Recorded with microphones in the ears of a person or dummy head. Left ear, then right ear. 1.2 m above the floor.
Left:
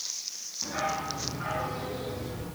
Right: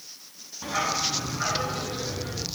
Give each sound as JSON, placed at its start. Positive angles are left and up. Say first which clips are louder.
{"t": 0.6, "sound": "a dog barking", "louder": "right 5 dB", "side_deg": -75, "distance_m": 3.5}